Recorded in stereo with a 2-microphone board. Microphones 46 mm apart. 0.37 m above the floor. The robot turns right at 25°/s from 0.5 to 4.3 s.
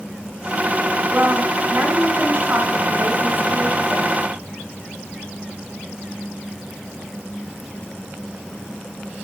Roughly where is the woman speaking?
Behind right.